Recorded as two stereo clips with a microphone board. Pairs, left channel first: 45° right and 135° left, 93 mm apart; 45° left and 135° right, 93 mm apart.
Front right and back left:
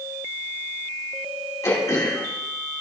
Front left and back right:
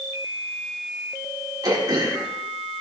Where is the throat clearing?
100° right, 2 m.